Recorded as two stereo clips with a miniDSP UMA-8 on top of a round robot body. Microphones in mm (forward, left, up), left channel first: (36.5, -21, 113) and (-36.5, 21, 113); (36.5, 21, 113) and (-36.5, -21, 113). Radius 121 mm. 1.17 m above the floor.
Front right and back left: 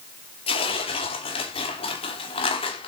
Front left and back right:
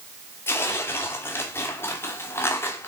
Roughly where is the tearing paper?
Ahead right.